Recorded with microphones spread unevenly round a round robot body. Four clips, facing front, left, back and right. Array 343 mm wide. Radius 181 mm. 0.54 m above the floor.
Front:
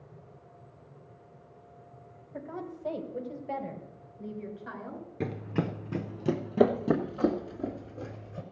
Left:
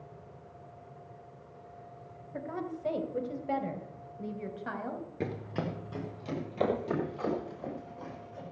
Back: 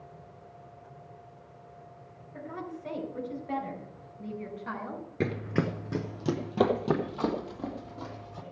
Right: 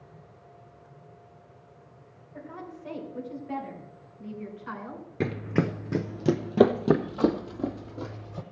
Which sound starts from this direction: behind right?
Running footsteps, at 5.2 s.